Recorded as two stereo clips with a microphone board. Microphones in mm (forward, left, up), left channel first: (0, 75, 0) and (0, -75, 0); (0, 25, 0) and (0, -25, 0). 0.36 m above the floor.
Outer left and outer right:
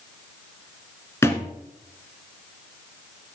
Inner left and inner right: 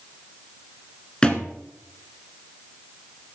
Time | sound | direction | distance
1.2 | a thud | 20° left (ahead or behind) | 1.5 m